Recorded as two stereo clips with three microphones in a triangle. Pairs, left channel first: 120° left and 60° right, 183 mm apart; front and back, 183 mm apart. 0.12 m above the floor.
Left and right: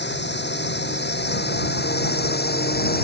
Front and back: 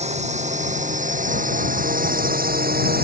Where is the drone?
130° left; by 3.0 s 150° left.